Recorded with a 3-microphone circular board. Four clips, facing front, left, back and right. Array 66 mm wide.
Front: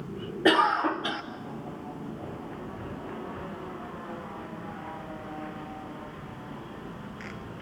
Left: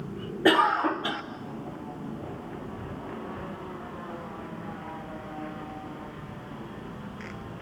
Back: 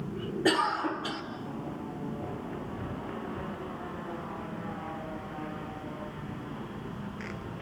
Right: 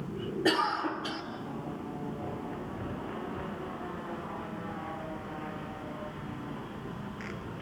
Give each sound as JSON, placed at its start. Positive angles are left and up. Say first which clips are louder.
{"t": 0.5, "sound": "a cough", "louder": "left 7 dB, front 5 dB", "azimuth_deg": 50, "distance_m": 1.1}